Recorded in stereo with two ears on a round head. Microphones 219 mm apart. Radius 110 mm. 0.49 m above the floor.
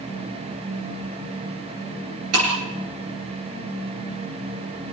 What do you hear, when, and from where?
2.3 s breaking glass: 65° right (ahead or behind), 8 m